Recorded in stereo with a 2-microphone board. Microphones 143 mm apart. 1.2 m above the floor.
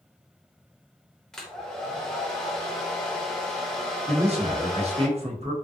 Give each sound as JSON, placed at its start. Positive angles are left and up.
{"t": 1.3, "sound": "a hair dryer", "side_deg": 5, "distance_m": 0.9}
{"t": 4.1, "sound": "a man speaking", "side_deg": -45, "distance_m": 1.2}